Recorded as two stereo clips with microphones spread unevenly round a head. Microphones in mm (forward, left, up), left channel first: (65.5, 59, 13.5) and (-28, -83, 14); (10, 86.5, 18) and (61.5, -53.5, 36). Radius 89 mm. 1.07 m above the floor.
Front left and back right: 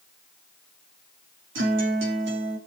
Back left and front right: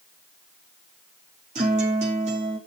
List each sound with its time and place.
1.6 s a guitar: 120° right, 3.5 m